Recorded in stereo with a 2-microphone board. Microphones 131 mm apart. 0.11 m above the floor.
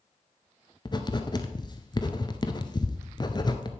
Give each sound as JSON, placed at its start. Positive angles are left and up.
{"t": 0.8, "sound": "writing", "side_deg": 35, "distance_m": 0.8}